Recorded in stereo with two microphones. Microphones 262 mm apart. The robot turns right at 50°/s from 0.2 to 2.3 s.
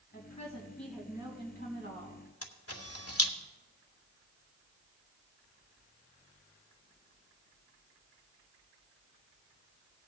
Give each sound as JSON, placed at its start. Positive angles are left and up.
{"t": 0.1, "sound": "a woman speaking", "azimuth_deg": 145, "distance_m": 3.5}
{"t": 2.4, "sound": "a camera shutter", "side_deg": 60, "distance_m": 1.3}